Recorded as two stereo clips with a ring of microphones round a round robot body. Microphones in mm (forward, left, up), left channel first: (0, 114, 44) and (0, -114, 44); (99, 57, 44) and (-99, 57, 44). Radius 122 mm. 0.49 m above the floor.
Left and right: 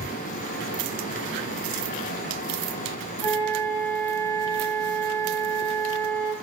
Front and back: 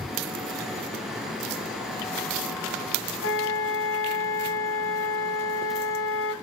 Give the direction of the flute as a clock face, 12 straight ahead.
12 o'clock.